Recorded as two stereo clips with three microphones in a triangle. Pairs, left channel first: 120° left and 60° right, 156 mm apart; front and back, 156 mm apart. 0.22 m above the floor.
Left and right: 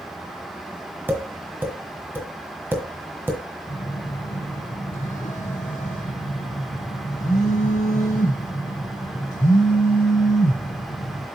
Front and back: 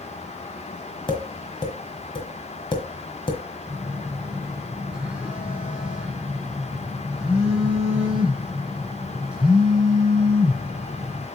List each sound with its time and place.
1.1 s tapping: 5° left, 1.5 m
3.7 s a phone buzzing: 100° left, 1.6 m